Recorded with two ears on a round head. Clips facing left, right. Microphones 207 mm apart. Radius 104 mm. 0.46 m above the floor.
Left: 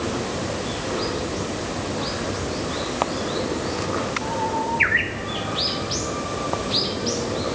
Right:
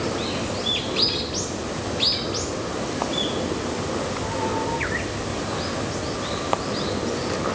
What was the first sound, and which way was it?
Only background noise.